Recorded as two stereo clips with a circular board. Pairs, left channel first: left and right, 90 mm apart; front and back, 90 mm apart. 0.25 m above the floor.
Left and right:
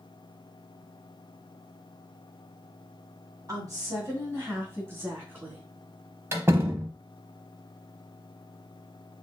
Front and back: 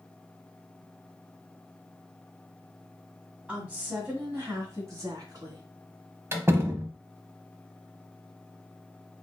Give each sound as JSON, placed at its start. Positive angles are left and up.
{"t": 3.5, "sound": "a woman speaking", "azimuth_deg": -115, "distance_m": 2.0}
{"t": 6.3, "sound": "a door slam", "azimuth_deg": -135, "distance_m": 0.8}